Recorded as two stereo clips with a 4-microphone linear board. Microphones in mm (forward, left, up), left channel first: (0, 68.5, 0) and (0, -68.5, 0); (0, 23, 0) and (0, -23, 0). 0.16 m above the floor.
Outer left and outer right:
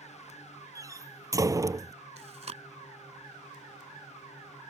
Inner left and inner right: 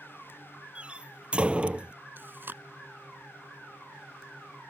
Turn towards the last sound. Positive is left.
turn(degrees=-45)  # may be behind; listen again after turning